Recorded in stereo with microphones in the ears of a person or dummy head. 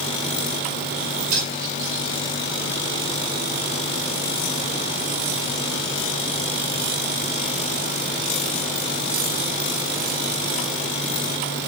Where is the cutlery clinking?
50° right (ahead or behind), 7 m.